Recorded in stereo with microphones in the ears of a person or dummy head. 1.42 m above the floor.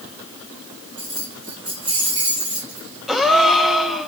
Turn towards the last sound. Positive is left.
turn(degrees=0)  # may be behind; listen again after turning